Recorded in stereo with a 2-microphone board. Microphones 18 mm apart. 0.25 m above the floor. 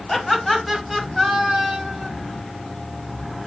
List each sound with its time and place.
0.1 s laughter: 5° left (ahead or behind), 1.2 m; by 2.1 s 40° right (ahead or behind), 1.5 m